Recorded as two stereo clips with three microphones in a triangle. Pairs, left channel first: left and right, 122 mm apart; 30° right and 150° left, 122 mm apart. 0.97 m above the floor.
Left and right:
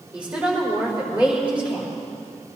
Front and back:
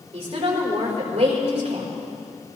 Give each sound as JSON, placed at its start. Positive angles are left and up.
{"t": 0.1, "sound": "a woman speaking", "azimuth_deg": -170, "distance_m": 4.5}